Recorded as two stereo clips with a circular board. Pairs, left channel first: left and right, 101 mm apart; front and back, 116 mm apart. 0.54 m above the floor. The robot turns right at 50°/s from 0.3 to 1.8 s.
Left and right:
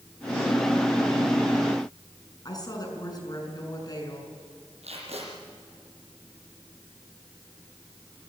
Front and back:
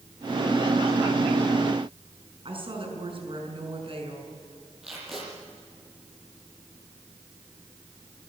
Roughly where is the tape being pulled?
Right.